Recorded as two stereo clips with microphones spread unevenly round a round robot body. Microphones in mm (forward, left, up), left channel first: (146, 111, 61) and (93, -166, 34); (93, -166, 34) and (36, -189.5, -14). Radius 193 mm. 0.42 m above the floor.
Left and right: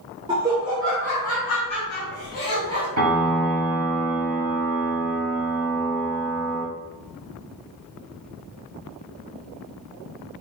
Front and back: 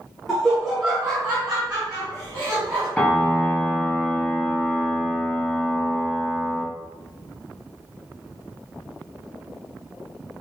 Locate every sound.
0.3 s laughter: 160° right, 1.0 m; by 2.9 s 140° left, 1.9 m
3.0 s a piano: 65° right, 1.9 m